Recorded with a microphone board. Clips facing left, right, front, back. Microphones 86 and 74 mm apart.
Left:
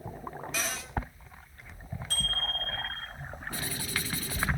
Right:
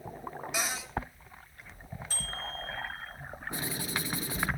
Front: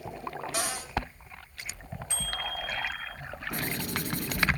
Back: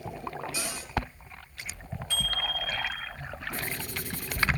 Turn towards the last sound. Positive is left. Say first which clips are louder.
# right 1 dB, front 5 dB
turn(degrees=-20)